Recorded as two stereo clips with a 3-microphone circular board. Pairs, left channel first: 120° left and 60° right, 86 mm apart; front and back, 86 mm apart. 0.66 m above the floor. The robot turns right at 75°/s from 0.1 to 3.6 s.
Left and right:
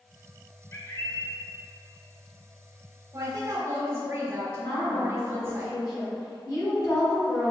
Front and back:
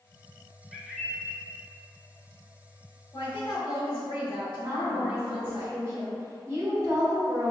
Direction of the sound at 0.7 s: 90° left.